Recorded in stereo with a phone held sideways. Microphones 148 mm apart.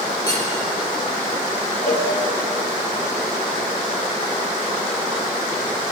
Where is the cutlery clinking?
30° left (ahead or behind), 3.5 m.